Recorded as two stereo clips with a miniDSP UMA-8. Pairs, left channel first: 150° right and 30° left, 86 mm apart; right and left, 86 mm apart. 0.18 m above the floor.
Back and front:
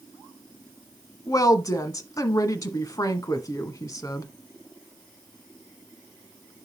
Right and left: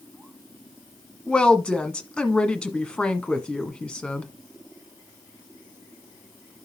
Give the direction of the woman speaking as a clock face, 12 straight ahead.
5 o'clock.